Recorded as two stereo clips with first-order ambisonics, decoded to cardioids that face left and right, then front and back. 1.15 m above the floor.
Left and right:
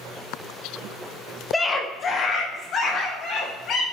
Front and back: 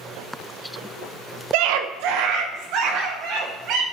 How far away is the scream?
About 0.7 m.